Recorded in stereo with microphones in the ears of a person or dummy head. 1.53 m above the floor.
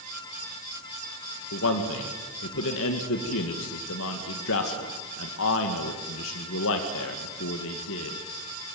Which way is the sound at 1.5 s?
75° left (ahead or behind).